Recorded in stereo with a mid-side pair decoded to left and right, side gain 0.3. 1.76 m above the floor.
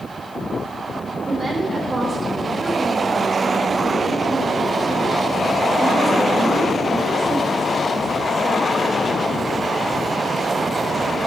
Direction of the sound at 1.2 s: 35° right.